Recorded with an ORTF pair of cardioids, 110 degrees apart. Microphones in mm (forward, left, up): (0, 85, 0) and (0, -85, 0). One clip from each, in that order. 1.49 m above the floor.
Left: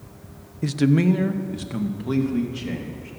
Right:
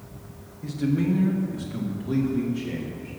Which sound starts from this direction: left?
A man speaking, at 0.6 s.